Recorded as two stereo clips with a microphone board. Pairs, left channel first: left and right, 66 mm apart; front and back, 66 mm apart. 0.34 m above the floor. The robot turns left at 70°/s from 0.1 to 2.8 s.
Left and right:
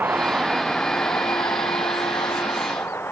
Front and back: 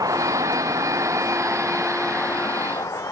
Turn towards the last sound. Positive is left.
turn(degrees=35)